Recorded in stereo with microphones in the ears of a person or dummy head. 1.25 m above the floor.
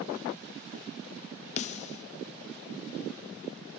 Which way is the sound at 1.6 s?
35° left (ahead or behind).